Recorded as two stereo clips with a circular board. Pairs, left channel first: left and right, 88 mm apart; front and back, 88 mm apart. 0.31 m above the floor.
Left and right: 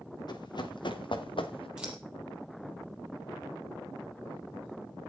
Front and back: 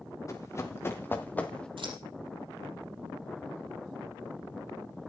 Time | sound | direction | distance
0.3 | running footsteps | 55° left | 3.5 m
1.8 | scissors | 170° right | 4.5 m